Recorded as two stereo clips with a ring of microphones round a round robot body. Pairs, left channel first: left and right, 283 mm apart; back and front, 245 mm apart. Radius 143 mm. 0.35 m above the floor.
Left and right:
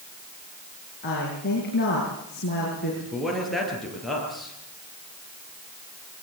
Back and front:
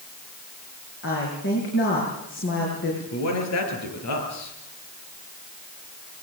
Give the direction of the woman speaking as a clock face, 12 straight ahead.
7 o'clock.